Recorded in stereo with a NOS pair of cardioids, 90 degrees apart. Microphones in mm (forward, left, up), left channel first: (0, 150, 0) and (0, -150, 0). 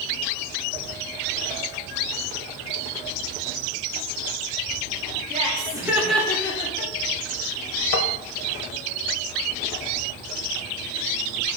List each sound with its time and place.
5.3 s laughter: 25° right, 1.1 m; by 6.9 s 30° left, 1.1 m
7.9 s tapping: 50° left, 0.7 m